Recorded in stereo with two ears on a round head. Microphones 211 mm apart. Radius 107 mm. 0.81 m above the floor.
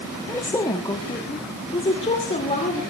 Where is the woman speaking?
10° left (ahead or behind), 1.1 m; by 2.8 s 30° left (ahead or behind), 2.5 m.